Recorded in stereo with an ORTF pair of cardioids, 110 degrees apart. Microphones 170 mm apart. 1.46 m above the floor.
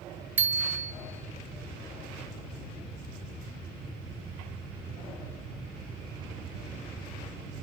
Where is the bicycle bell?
10° right, 3 m.